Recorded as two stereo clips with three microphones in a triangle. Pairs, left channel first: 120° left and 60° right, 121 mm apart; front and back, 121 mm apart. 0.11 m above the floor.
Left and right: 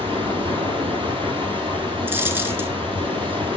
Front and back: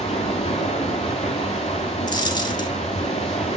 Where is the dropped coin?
Straight ahead, 0.7 m.